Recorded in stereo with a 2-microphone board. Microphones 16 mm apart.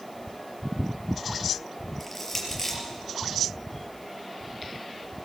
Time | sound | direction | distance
2.0 | crushing | centre (ahead or behind) | 5 m